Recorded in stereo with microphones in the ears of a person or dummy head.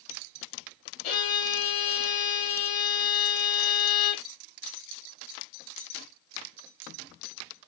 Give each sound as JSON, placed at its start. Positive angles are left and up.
{"t": 1.0, "sound": "a violin", "side_deg": 55, "distance_m": 1.5}